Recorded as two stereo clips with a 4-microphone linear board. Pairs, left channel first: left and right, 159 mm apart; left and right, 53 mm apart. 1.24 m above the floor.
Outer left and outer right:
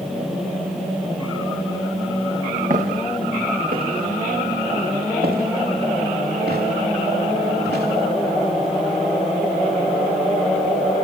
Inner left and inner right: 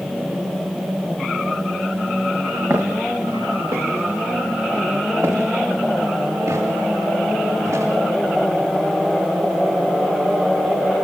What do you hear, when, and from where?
2.7 s footsteps: 60° right (ahead or behind), 7 m; by 7.8 s 80° right, 11 m